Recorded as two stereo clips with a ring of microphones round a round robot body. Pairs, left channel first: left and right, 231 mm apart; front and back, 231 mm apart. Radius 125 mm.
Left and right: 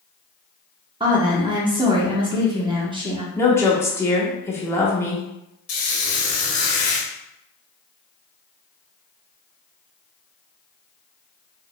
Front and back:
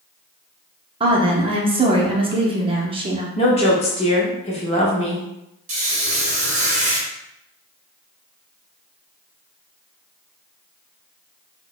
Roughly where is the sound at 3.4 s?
Ahead left.